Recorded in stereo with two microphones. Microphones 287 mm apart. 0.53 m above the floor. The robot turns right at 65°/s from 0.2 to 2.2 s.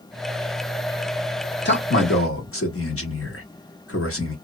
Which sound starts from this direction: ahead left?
A man speaking, at 1.6 s.